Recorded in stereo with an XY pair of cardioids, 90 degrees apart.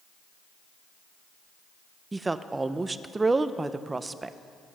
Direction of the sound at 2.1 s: 25° right.